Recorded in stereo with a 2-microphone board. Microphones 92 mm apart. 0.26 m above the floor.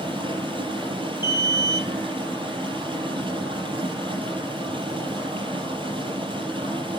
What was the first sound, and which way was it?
Running water, 70° right (ahead or behind).